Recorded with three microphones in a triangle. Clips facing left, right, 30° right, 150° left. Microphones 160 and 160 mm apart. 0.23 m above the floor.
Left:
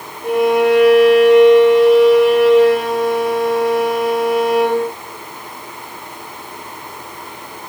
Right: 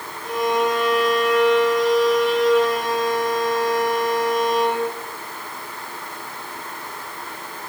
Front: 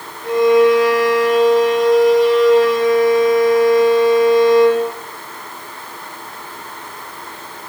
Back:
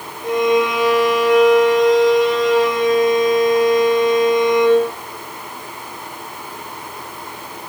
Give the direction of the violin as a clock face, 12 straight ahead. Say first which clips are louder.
Left 8 dB, front 5 dB; 9 o'clock.